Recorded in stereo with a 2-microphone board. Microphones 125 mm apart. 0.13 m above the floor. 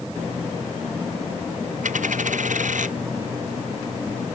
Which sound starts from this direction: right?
A dropped coin, at 1.8 s.